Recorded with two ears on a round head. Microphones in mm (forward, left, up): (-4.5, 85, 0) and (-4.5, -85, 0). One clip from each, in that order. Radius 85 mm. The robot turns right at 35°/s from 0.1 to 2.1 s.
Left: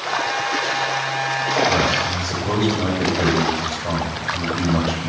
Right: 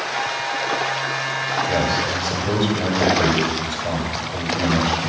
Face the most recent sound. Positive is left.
turn(degrees=-15)  # may be behind; listen again after turning